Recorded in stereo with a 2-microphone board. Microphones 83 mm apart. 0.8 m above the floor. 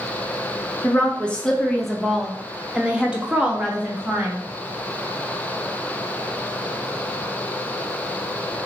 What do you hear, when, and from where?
0.8 s a woman speaking: 20° left (ahead or behind), 0.7 m; by 4.4 s 15° right (ahead or behind), 1.6 m